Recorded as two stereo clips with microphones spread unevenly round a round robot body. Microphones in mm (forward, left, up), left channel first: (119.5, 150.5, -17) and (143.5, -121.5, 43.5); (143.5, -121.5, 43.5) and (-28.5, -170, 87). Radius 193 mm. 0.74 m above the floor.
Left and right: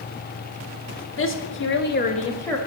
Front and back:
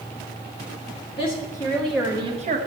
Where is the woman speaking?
70° left, 1.9 m; by 2.6 s 165° left, 1.0 m.